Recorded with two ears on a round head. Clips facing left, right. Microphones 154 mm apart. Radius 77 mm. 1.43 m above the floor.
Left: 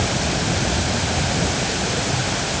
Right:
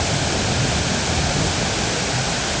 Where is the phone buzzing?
No phone buzzing in this recording.